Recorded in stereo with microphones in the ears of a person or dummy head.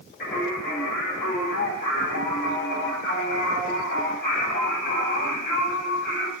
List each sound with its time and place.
0.2 s singing: 60° left (ahead or behind), 4.5 m